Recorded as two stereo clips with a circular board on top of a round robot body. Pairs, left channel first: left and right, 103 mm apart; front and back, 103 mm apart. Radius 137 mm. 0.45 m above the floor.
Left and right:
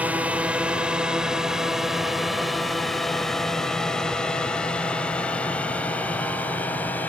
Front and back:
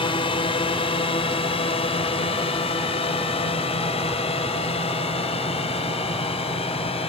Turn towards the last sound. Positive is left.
turn(degrees=15)